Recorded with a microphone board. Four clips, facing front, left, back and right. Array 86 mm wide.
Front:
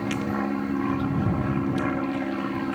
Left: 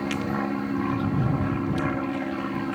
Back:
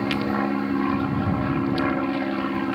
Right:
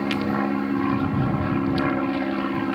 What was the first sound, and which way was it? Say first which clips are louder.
An aircraft: right 4 dB, back 3 dB; 145° right.